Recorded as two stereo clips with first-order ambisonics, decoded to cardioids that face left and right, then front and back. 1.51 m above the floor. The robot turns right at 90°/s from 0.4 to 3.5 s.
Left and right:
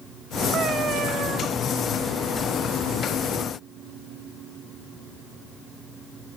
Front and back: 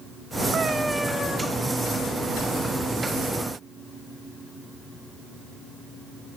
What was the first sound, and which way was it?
A cat meowing, 130° right.